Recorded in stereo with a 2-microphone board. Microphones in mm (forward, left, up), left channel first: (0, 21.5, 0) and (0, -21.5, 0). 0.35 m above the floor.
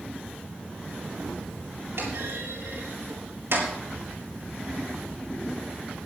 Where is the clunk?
75° right (ahead or behind), 6.5 m.